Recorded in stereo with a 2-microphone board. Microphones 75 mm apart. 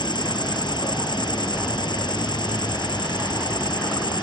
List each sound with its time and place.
0.0 s an insect: 75° left (ahead or behind)